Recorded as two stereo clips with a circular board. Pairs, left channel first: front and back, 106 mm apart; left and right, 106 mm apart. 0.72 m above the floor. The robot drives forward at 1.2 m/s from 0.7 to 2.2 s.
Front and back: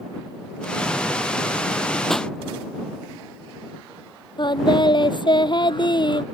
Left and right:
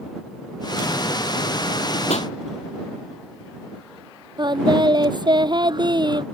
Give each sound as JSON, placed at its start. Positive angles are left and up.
{"t": 2.1, "sound": "a pop", "azimuth_deg": 85}
{"t": 4.4, "sound": "singing", "azimuth_deg": -45}